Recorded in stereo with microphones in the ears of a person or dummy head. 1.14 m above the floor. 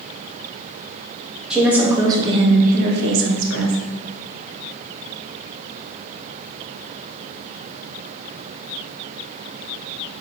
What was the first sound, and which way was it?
A woman speaking, centre (ahead or behind).